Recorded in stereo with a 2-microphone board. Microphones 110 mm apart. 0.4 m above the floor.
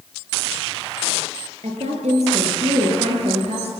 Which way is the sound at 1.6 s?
80° right.